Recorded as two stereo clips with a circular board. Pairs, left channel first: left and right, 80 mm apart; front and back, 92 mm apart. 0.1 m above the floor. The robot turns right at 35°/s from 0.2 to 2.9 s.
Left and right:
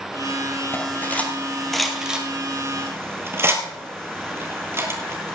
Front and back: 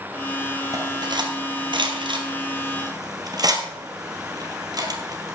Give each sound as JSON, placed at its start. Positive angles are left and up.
{"t": 0.7, "sound": "cutlery clinking", "azimuth_deg": 140, "distance_m": 1.5}